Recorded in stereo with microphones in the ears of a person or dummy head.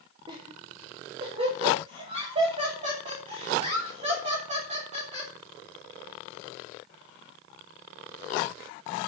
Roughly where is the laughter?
Right.